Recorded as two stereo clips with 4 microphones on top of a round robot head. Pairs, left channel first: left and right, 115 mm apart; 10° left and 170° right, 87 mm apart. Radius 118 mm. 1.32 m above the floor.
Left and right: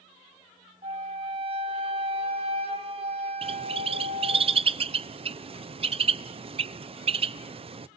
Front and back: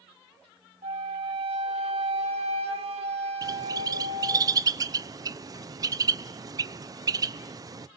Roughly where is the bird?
Behind right.